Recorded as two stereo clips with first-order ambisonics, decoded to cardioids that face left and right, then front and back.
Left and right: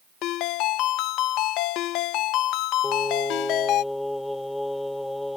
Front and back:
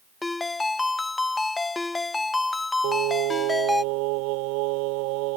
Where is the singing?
175° left.